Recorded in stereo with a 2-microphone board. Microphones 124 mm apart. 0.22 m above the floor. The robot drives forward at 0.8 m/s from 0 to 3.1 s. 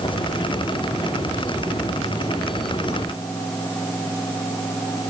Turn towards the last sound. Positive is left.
No sound to turn to.